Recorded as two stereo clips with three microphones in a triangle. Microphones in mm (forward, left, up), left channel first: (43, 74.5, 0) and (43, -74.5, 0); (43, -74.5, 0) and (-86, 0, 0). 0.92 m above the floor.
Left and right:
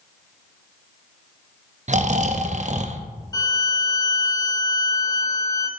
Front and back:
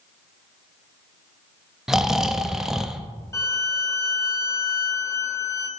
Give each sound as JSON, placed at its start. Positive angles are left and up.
{"t": 1.9, "sound": "snoring", "azimuth_deg": -125, "distance_m": 0.5}
{"t": 3.3, "sound": "a violin", "azimuth_deg": 35, "distance_m": 0.8}